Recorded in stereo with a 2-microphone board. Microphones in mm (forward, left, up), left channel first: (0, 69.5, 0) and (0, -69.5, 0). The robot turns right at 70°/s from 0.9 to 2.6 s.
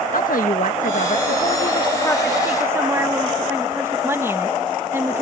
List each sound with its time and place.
0.1 s a woman speaking: 80° left; by 5.2 s 160° right